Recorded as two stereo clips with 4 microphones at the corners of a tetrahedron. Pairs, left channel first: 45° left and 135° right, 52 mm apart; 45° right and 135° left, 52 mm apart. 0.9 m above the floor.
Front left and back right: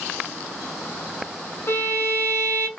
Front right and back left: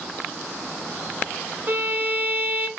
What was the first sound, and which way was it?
A violin, 85° left.